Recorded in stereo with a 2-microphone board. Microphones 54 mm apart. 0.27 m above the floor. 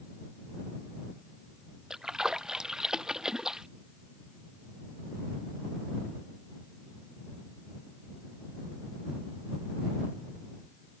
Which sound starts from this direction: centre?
A splash, at 1.9 s.